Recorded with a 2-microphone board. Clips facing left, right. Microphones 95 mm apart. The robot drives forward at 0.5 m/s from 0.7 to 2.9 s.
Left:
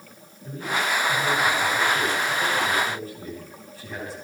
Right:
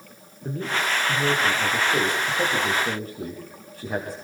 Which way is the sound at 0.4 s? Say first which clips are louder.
Even; 65° right (ahead or behind).